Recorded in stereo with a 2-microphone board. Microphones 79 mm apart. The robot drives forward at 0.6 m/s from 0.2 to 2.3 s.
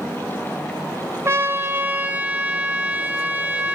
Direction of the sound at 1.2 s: 35° right (ahead or behind).